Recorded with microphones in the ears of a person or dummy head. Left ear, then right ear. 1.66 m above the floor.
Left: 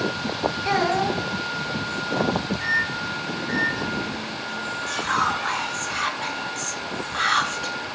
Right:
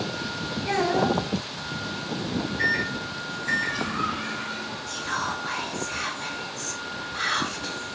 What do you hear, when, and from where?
0.7 s a child speaking: 55° left (ahead or behind), 1.2 m
2.6 s a microwave: 45° right (ahead or behind), 0.6 m
4.9 s whispering: 35° left (ahead or behind), 0.9 m